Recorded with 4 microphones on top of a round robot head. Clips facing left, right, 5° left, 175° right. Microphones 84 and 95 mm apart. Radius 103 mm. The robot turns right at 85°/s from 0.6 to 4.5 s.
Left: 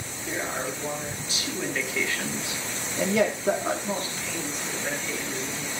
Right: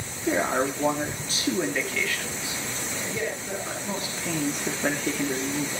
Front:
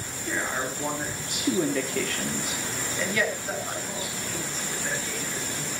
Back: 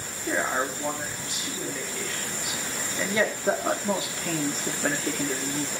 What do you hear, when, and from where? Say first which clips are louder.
0.3 s a man speaking: right 7 dB, back 3 dB; 105° right, 3 m; by 5.8 s 130° right, 3 m